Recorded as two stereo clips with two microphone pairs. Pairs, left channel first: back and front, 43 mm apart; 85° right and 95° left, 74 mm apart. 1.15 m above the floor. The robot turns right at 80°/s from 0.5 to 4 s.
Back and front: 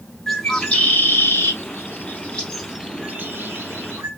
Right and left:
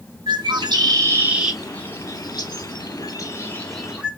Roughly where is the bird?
Left.